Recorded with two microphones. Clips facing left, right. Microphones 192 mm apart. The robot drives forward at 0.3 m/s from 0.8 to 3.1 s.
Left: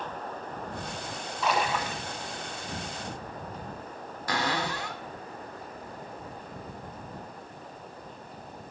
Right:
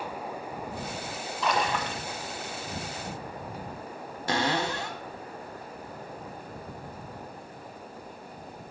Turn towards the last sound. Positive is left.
turn(degrees=-25)  # may be behind; listen again after turning